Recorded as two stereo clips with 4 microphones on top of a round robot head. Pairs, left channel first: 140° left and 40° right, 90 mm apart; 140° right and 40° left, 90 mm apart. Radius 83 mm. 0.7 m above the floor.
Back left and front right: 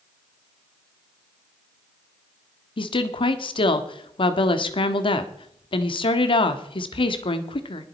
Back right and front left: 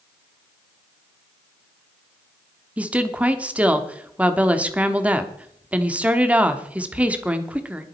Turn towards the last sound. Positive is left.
turn(degrees=115)